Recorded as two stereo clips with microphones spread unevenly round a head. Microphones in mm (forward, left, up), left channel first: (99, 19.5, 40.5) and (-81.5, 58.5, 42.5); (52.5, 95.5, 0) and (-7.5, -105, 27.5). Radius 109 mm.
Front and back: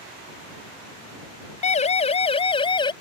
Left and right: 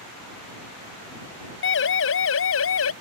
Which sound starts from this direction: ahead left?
A siren, at 1.6 s.